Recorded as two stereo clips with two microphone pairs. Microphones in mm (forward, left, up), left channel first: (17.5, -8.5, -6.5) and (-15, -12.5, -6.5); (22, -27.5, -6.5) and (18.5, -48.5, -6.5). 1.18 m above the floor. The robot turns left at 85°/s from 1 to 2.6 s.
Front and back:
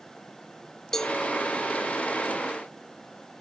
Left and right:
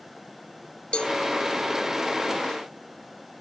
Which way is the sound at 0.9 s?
70° left.